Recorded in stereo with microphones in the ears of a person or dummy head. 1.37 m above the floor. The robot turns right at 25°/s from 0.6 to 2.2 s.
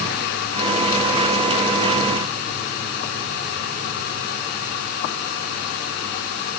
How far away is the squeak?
I don't hear a squeak.